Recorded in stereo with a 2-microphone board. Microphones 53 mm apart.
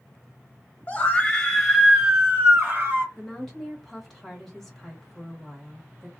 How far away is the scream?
About 1.0 m.